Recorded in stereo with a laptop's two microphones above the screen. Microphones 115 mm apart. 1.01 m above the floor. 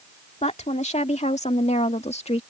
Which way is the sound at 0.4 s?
80° left.